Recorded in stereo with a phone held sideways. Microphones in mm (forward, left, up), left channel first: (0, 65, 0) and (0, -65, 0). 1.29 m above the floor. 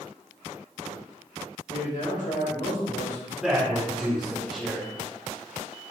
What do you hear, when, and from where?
1.7 s a man speaking: 60° left (ahead or behind), 1.5 m
3.4 s a man speaking: 5° right (ahead or behind), 1.0 m